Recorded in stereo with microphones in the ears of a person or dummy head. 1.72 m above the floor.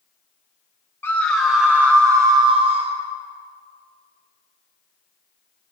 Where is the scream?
10° left (ahead or behind), 1.2 m; by 3.0 s 35° right (ahead or behind), 1.4 m.